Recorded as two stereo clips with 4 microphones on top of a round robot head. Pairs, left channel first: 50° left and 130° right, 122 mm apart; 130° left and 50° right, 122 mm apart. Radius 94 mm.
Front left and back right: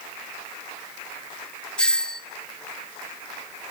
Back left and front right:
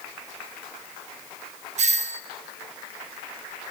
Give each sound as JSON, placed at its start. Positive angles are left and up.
{"t": 1.8, "sound": "a doorbell", "azimuth_deg": -35, "distance_m": 1.7}